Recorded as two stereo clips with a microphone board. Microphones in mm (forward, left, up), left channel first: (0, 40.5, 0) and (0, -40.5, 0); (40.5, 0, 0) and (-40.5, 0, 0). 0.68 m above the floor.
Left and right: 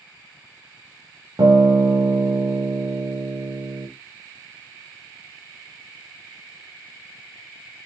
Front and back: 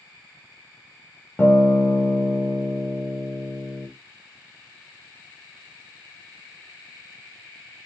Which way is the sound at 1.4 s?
65° right.